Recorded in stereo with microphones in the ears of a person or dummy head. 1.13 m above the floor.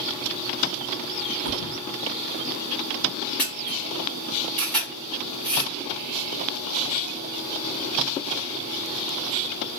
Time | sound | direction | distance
1.4 | a thud | 45° right (ahead or behind) | 0.7 m
3.4 | a camera shutter | centre (ahead or behind) | 1.2 m